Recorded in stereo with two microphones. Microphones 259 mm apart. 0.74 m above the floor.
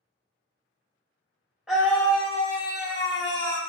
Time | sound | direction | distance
1.7 | a scream | 5° right (ahead or behind) | 0.9 m